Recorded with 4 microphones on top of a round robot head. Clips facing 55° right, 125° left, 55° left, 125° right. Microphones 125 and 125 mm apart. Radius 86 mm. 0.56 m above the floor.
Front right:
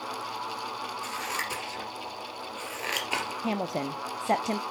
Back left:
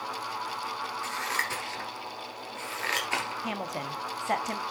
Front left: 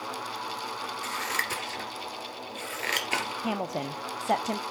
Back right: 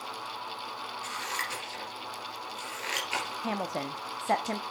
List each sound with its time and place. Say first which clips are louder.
1.0 s scissors: back left 1 dB, front left 3 dB; 20° left, 2.5 m
3.4 s a woman speaking: front right 4 dB, front left 2 dB; 15° right, 0.8 m